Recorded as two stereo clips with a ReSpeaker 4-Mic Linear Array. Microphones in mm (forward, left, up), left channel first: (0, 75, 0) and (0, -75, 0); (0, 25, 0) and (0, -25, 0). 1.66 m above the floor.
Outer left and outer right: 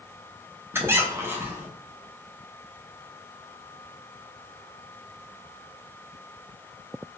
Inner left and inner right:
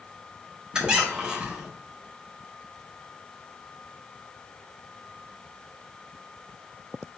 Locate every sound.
0.7 s a squeak: 15° right (ahead or behind), 0.7 m